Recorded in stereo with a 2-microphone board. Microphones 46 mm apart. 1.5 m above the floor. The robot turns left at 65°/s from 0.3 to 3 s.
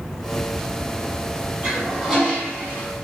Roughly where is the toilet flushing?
Behind right.